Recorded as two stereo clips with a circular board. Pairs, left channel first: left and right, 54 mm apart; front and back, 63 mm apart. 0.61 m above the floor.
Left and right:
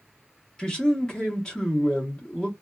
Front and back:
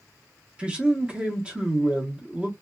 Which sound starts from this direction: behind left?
A man speaking, at 0.6 s.